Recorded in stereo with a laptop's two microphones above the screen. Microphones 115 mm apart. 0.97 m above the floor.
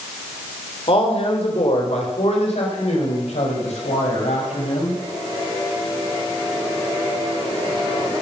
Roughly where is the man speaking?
Left.